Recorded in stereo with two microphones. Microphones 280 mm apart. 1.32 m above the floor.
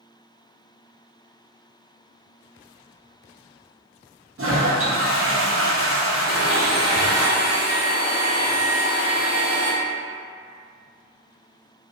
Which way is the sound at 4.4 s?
50° right (ahead or behind).